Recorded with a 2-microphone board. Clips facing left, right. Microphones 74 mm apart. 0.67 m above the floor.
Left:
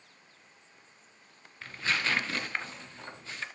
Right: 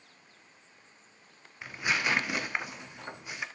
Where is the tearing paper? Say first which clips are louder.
Right 1 dB; 15° right (ahead or behind), 1.5 m.